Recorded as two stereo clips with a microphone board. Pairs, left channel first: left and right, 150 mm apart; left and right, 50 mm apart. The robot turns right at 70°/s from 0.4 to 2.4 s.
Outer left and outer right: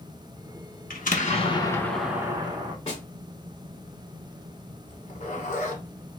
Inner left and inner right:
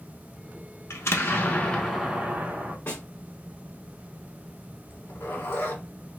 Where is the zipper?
55° left (ahead or behind), 1.0 m.